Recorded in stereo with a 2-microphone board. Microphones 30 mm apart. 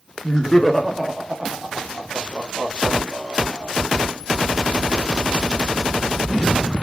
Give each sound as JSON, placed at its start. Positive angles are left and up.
{"t": 0.2, "sound": "laughter", "side_deg": 25, "distance_m": 0.8}